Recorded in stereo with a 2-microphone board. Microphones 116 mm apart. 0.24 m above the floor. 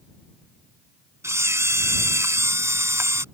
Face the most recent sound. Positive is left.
turn(degrees=-25)  # may be behind; listen again after turning